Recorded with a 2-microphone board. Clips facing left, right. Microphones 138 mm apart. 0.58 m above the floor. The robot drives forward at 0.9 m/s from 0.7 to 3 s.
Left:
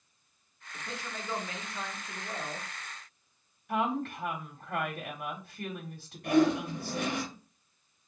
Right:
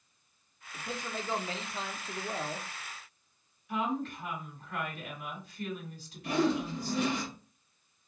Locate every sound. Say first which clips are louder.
0.7 s a man speaking: right 3 dB; 15° right (ahead or behind), 1.3 m; by 2.7 s 20° right (ahead or behind), 1.0 m
3.7 s a woman speaking: left 2 dB; 60° left (ahead or behind), 1.4 m
6.2 s a whoosh: left 4 dB; 55° left (ahead or behind), 2.5 m